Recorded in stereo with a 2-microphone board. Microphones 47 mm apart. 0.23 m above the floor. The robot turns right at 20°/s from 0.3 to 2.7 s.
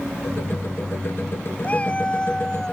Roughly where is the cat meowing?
Left.